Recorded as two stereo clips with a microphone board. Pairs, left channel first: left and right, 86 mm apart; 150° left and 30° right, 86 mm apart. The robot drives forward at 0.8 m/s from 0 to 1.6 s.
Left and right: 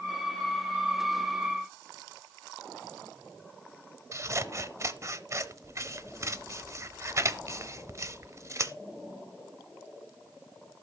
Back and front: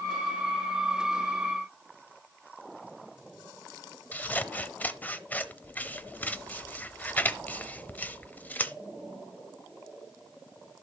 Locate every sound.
4.1 s scissors: 140° right, 0.7 m